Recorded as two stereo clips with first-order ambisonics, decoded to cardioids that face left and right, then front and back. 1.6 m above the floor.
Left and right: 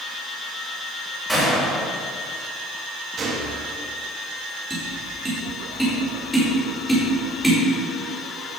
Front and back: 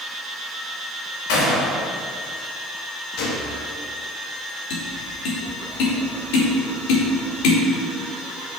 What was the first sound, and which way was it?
A gunshot, straight ahead.